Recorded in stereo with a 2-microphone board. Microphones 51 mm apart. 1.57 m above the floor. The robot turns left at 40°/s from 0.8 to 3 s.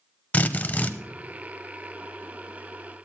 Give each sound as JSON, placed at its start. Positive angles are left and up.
{"t": 0.3, "sound": "a drill", "side_deg": 25, "distance_m": 0.9}